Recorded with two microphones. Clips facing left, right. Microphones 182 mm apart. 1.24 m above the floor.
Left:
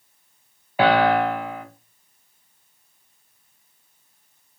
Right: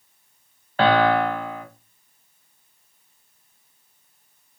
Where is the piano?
10° left (ahead or behind), 0.5 m.